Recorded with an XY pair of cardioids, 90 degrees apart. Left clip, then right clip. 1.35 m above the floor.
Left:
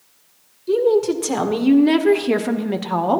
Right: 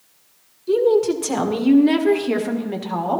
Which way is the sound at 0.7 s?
5° right.